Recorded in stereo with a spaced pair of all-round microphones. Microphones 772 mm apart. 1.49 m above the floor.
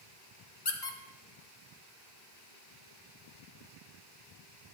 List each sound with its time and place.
0.7 s a squeak: 35° left (ahead or behind), 0.6 m